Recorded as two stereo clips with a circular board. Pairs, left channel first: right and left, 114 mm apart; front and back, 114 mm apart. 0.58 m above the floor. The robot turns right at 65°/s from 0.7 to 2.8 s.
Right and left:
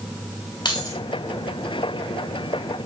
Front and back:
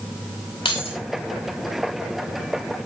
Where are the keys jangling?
40° right, 2 m; by 1.0 s 25° right, 2 m.